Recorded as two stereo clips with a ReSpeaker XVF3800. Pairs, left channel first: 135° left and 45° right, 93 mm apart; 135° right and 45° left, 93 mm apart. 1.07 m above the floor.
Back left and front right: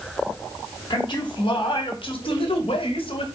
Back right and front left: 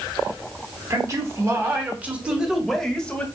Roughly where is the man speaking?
Left.